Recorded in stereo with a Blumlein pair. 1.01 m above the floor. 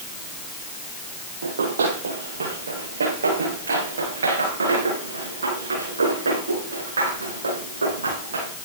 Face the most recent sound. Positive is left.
turn(degrees=-75)